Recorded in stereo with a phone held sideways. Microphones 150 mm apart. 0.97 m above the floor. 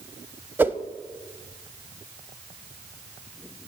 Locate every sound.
0.6 s a whoosh: 15° right (ahead or behind), 0.8 m